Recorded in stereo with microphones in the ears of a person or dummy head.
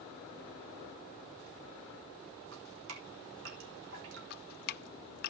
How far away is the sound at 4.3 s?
About 0.5 m.